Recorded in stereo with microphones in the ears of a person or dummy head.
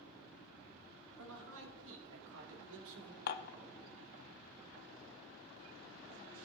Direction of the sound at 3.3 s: 60° left (ahead or behind).